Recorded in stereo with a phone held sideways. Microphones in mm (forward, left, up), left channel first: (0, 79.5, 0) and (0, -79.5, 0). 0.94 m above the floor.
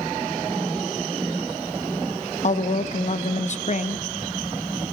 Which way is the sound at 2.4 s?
50° left (ahead or behind).